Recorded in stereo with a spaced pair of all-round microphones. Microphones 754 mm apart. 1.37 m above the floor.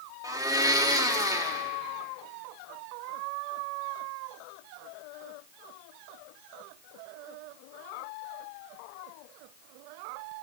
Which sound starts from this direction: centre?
A blender, at 0.2 s.